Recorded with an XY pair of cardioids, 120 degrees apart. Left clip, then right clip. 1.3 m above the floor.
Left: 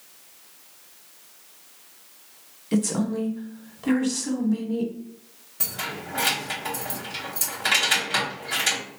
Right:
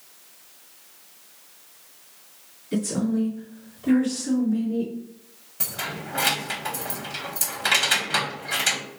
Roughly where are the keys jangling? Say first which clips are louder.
Even; ahead.